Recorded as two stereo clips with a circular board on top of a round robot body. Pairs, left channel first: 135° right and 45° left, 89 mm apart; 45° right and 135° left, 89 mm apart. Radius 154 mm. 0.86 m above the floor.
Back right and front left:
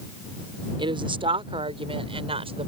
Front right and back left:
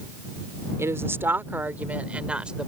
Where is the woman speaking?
75° left; by 2.7 s 55° left.